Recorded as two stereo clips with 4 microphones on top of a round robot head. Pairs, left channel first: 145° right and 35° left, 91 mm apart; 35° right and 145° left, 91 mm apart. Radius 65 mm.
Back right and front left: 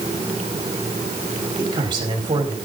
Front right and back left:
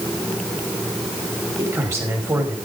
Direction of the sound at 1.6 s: 80° left.